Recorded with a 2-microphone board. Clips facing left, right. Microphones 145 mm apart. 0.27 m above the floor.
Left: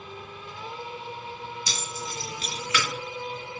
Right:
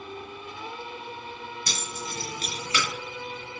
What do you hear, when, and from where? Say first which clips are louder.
1.7 s keys jangling: even; 55° right (ahead or behind), 1.2 m; by 2.9 s 25° right (ahead or behind), 0.8 m